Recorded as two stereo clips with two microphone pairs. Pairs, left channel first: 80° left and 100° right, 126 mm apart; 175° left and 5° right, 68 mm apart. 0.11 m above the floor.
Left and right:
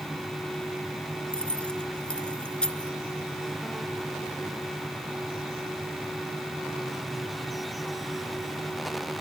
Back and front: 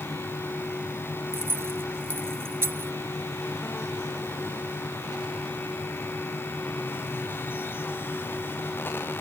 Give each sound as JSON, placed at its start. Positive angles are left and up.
{"t": 1.3, "sound": "keys jangling", "azimuth_deg": 0}